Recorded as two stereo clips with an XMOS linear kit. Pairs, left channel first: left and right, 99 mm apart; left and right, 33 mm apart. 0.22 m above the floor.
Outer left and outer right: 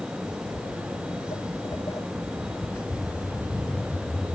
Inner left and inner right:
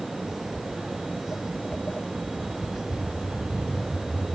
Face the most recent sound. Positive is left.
turn(degrees=5)  # may be behind; listen again after turning